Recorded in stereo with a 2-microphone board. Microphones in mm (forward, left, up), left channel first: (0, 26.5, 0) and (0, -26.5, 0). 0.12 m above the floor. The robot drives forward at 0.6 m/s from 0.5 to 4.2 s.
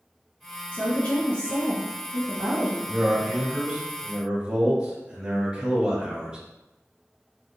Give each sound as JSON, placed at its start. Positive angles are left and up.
{"t": 0.7, "sound": "a woman speaking", "side_deg": 25, "distance_m": 1.6}
{"t": 2.9, "sound": "a man speaking", "side_deg": -20, "distance_m": 1.2}